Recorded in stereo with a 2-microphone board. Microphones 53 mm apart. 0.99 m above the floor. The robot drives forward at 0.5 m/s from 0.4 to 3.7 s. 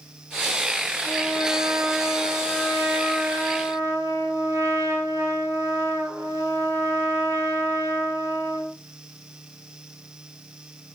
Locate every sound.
1.0 s a trumpet: 65° right (ahead or behind), 5.5 m; by 8.7 s 75° right (ahead or behind), 5 m